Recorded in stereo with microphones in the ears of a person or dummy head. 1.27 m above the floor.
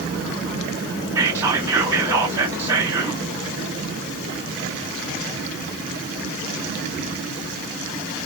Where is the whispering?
15° right (ahead or behind), 0.9 m.